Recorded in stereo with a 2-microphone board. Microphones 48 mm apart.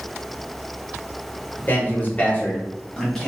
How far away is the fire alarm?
No fire alarm in this recording.